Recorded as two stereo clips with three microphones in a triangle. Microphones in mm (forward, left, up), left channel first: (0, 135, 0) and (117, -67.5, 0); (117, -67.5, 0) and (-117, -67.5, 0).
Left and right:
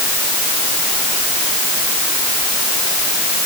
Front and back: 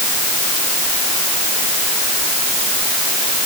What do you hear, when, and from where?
Only background noise.